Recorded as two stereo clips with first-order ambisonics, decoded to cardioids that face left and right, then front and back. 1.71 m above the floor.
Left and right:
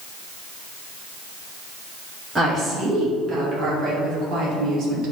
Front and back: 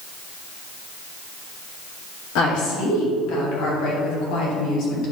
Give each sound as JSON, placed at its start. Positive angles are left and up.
{"t": 2.4, "sound": "a woman speaking", "azimuth_deg": -15, "distance_m": 3.0}